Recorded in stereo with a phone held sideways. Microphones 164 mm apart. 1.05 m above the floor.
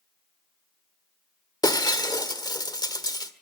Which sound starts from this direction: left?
Breaking glass, at 1.6 s.